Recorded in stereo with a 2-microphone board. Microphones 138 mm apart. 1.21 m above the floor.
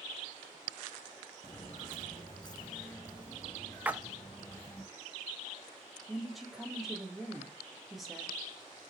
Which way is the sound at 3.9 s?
10° right (ahead or behind).